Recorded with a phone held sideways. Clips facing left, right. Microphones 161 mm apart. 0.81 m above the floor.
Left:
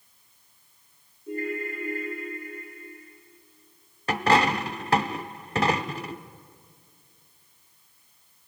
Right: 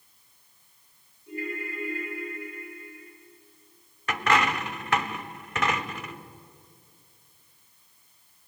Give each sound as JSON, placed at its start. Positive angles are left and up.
{"t": 1.3, "sound": "a ringtone", "side_deg": 55, "distance_m": 8.0}
{"t": 4.1, "sound": "a dropped coin", "side_deg": 35, "distance_m": 0.8}